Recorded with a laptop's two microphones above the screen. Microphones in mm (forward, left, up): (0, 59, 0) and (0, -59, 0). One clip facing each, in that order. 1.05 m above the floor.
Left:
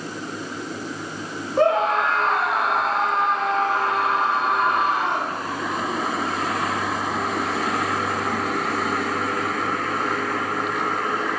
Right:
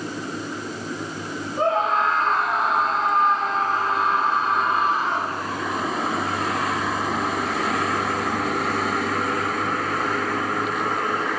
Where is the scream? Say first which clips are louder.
Left 3 dB; 80° left, 6.5 m.